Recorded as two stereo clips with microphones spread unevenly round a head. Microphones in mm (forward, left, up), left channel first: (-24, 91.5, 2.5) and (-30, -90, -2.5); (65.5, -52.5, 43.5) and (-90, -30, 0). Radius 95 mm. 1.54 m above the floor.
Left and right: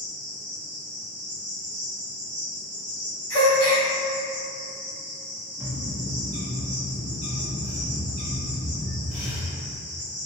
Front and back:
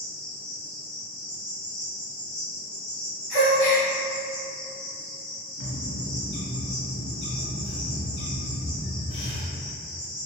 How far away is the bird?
About 0.9 m.